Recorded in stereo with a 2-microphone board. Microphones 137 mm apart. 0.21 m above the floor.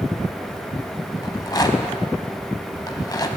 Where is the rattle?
30° left (ahead or behind), 1.0 m.